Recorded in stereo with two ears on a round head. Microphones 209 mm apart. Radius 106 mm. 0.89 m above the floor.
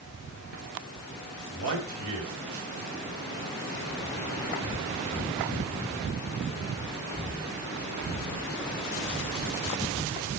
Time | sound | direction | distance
1.5 | a man speaking | 70° right (ahead or behind) | 4.5 m